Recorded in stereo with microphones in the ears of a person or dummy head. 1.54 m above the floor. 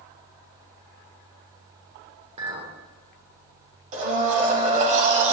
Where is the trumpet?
I don't hear a trumpet.